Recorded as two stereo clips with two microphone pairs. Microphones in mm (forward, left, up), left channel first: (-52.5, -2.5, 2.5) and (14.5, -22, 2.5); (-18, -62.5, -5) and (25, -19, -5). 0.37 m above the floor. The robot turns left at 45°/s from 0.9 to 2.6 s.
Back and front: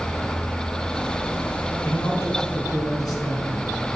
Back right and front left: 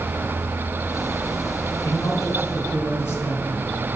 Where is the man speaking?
145° right, 3.5 m; by 3.7 s straight behind, 3.5 m.